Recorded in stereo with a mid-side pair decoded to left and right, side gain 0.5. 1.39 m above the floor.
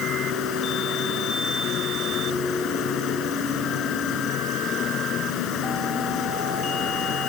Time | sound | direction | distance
0.0 | an insect | 65° left | ?